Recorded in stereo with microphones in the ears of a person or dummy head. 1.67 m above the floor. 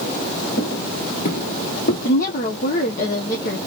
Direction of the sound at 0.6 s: 35° left (ahead or behind).